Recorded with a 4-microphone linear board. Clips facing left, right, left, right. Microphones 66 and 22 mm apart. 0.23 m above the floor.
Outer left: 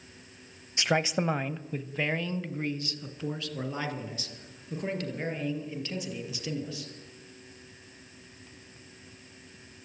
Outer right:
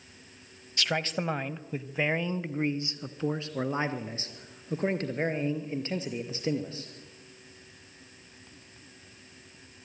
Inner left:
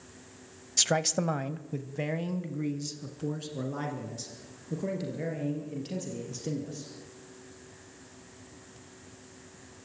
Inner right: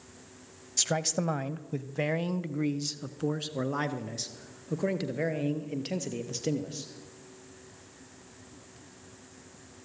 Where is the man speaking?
20° left (ahead or behind), 1.0 m; by 6.9 s 35° right (ahead or behind), 5 m.